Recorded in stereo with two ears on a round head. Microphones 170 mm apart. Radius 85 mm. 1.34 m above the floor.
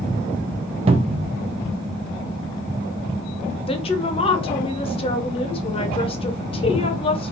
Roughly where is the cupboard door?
Right.